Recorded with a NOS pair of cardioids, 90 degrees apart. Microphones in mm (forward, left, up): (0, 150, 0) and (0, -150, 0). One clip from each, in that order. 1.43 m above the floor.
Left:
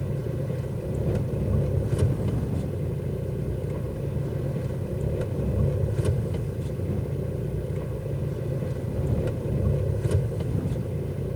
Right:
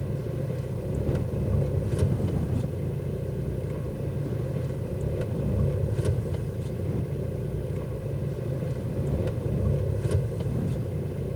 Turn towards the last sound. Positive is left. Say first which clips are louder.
# left 1 dB
turn(degrees=10)